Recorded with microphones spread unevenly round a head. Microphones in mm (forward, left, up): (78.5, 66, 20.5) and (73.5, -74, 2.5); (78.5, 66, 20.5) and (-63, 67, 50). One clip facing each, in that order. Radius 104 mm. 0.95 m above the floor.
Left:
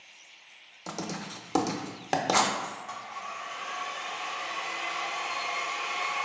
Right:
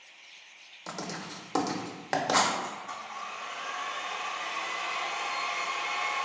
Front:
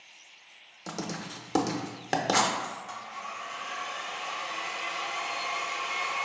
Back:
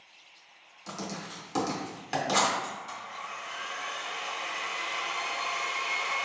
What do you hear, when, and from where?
0.9 s writing: 15° left, 0.5 m
2.6 s a blender: 165° right, 1.5 m